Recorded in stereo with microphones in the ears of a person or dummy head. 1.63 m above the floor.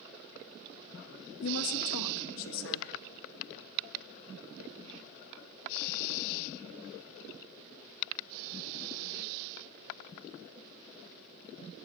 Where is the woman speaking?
75° left (ahead or behind), 1.8 m.